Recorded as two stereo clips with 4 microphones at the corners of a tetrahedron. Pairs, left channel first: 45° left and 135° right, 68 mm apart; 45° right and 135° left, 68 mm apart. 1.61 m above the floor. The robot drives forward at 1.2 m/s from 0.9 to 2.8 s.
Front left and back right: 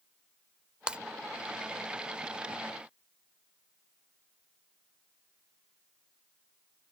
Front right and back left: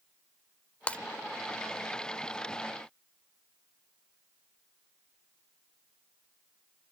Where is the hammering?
No hammering in this recording.